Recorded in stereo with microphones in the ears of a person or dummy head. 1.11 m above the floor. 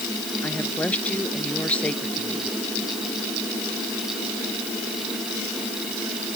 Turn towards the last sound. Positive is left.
turn(degrees=10)  # may be behind; listen again after turning